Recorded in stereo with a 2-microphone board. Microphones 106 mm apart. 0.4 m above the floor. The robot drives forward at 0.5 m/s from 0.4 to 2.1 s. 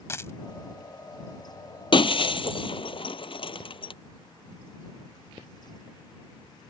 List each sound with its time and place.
0.1 s a dropped coin: 25° left (ahead or behind)
1.9 s breaking glass: 45° left (ahead or behind); by 3.9 s 50° left (ahead or behind)